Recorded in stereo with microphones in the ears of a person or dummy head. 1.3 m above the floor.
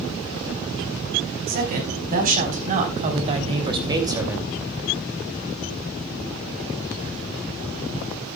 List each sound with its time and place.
1.5 s a woman speaking: 50° right (ahead or behind), 5 m; by 4.5 s 10° right (ahead or behind), 2.5 m